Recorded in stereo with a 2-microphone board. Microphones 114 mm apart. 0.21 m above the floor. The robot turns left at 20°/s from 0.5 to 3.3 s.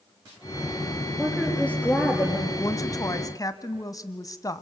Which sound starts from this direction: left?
A woman speaking, at 2.6 s.